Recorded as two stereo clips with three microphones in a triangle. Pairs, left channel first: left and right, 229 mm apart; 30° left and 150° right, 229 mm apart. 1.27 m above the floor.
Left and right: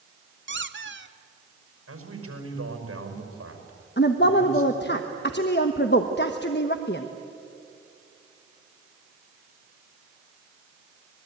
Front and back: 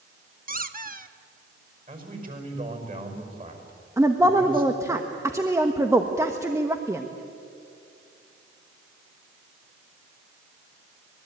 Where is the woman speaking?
135° left, 1.1 m.